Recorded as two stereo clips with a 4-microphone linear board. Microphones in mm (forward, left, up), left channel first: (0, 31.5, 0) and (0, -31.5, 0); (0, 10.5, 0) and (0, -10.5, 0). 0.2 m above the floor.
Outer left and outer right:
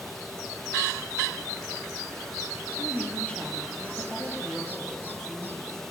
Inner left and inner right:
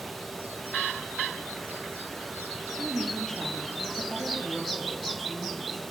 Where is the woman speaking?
20° left (ahead or behind), 4.5 m; by 5.8 s 25° left (ahead or behind), 8 m.